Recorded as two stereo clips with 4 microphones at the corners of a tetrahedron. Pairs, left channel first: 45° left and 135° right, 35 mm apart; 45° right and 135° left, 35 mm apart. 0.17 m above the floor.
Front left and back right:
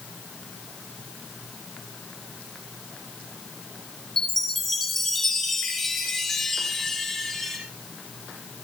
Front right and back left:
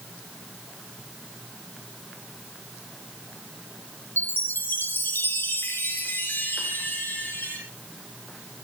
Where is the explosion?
No explosion in this recording.